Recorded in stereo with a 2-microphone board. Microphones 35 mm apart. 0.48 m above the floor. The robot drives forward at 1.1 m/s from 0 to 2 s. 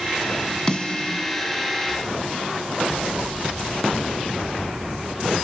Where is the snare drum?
25° left (ahead or behind), 1.5 m; by 1.2 s 45° left (ahead or behind), 1.0 m.